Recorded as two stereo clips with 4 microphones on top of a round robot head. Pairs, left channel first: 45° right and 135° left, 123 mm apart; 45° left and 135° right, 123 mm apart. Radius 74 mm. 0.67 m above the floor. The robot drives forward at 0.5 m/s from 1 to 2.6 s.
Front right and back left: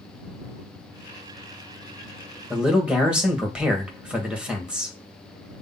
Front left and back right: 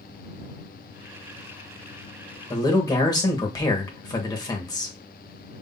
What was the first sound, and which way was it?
A man speaking, 55° left.